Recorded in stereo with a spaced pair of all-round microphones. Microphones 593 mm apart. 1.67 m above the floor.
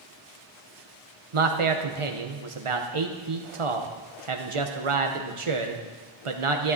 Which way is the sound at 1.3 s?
55° right (ahead or behind).